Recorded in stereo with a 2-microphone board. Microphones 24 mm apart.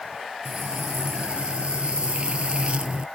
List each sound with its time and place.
0.5 s frying: 65° right (ahead or behind)